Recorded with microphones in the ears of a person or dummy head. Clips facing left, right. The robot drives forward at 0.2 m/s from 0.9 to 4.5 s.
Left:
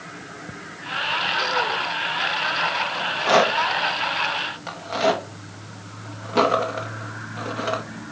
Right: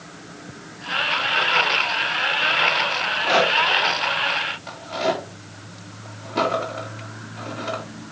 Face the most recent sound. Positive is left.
turn(degrees=60)  # may be behind; listen again after turning